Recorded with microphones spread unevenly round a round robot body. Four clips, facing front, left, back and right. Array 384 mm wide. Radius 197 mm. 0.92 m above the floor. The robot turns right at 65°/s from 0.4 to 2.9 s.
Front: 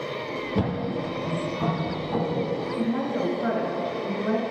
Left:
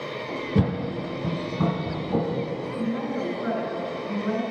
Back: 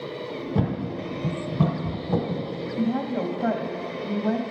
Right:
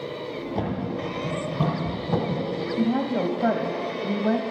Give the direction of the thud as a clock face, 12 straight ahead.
8 o'clock.